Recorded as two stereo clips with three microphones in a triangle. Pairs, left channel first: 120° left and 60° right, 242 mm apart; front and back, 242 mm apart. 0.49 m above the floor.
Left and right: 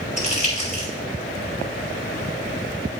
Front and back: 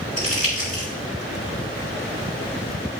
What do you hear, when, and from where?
0.2 s crumpling: straight behind, 3.5 m